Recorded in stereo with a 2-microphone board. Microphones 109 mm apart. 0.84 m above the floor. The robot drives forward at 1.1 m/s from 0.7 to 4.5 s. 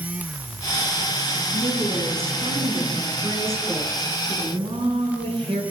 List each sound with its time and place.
1.5 s a woman speaking: 70° right (ahead or behind), 9.5 m; by 5.6 s 55° right (ahead or behind), 11 m